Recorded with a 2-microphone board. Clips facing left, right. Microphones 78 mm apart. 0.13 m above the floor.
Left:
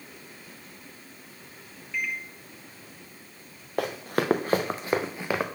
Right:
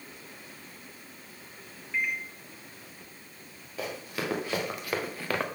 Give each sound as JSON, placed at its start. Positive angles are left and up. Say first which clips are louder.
{"t": 1.9, "sound": "a microwave", "louder": "right 1 dB", "side_deg": -20, "distance_m": 0.9}
{"t": 3.8, "sound": "running footsteps", "louder": "left 7 dB", "side_deg": 65, "distance_m": 1.2}